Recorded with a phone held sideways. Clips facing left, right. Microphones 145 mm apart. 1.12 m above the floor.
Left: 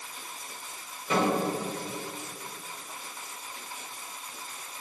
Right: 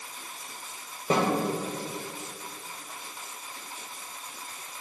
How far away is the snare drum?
About 4.5 m.